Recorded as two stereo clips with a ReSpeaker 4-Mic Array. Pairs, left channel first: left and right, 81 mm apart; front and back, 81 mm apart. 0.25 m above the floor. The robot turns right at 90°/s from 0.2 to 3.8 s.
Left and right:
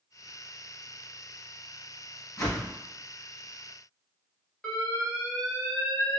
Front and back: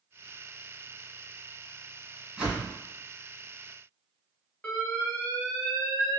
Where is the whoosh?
100° left, 1.9 m; by 2.7 s 130° left, 1.9 m.